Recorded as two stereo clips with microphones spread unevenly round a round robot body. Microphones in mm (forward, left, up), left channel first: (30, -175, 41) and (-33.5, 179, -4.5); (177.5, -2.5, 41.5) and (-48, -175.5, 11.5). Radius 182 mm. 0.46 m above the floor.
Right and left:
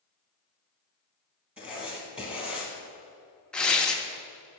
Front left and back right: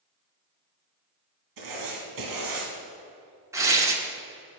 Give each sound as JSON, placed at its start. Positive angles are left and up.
{"t": 1.6, "sound": "writing", "azimuth_deg": -170, "distance_m": 2.5}
{"t": 3.5, "sound": "tearing paper", "azimuth_deg": 175, "distance_m": 1.0}